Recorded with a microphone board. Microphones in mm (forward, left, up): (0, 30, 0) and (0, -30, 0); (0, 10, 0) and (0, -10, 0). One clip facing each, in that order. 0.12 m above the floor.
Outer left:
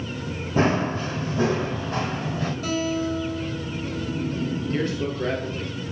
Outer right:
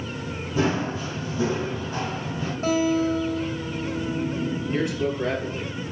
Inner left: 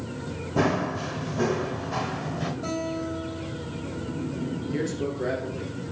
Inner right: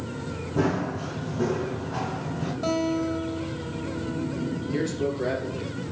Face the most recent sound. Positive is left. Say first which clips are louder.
# outer right 3 dB, inner right 2 dB
turn(degrees=-10)  # may be behind; listen again after turning